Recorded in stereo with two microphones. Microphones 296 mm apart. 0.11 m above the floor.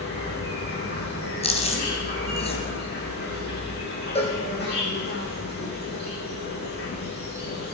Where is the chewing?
20° left (ahead or behind), 2 m.